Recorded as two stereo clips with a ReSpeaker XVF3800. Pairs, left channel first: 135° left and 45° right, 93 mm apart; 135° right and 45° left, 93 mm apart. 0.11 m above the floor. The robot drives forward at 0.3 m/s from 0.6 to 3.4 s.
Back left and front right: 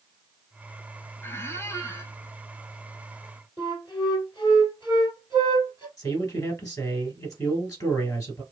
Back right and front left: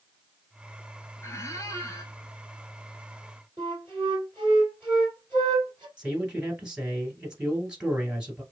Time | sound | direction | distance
1.2 | a squeak | 175° right | 0.5 m
3.6 | a flute | 160° left | 2 m
6.0 | a man speaking | 120° left | 1.8 m